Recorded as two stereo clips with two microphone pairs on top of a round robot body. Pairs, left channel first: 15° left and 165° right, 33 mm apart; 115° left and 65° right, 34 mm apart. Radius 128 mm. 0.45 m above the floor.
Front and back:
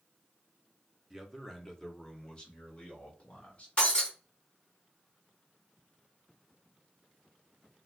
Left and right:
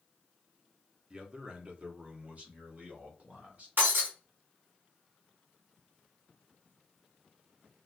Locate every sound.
1.1 s a man speaking: 90° right, 1.1 m; by 3.7 s 35° right, 2.0 m
3.8 s breaking glass: 45° right, 2.0 m